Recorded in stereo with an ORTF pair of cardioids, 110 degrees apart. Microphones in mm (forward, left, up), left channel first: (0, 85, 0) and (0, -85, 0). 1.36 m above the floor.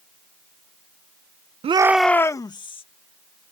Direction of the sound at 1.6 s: 35° right.